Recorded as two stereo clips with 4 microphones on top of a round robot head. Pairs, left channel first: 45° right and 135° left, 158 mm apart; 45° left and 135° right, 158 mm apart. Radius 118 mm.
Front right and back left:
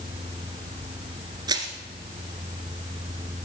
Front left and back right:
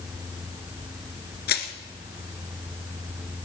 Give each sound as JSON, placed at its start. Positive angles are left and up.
{"t": 1.5, "sound": "crushing", "azimuth_deg": 70, "distance_m": 1.6}